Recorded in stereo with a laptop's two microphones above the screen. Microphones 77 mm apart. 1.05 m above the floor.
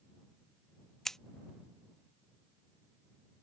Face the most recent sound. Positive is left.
turn(degrees=5)  # may be behind; listen again after turning